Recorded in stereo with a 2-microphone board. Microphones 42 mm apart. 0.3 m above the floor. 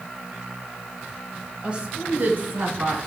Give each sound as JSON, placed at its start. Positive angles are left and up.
{"t": 1.6, "sound": "a woman speaking", "side_deg": -25, "distance_m": 1.6}